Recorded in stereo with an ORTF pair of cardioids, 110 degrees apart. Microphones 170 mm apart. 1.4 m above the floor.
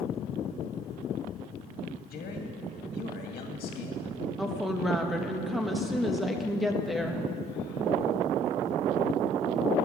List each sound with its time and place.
2.1 s a man speaking: 60° left, 2 m
4.4 s a woman speaking: straight ahead, 1.4 m